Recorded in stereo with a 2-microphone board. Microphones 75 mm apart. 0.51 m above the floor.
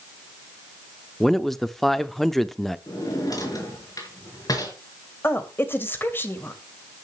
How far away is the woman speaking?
About 2.5 m.